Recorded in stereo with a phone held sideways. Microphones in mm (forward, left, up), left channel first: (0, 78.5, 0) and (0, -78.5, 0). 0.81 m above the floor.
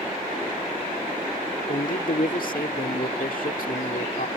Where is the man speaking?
65° left (ahead or behind).